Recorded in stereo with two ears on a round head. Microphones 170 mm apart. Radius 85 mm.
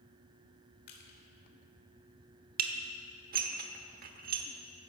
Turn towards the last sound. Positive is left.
turn(degrees=-50)  # may be behind; listen again after turning